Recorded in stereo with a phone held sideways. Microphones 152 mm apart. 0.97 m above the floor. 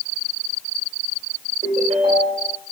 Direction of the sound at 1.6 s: 45° right (ahead or behind).